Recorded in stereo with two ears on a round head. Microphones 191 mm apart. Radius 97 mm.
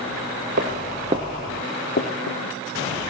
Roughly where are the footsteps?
Right.